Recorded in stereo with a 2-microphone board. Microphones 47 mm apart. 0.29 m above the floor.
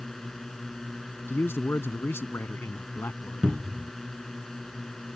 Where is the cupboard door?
10° right (ahead or behind).